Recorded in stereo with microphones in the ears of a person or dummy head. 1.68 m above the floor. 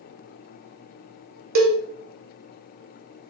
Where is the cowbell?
60° right (ahead or behind), 0.9 m.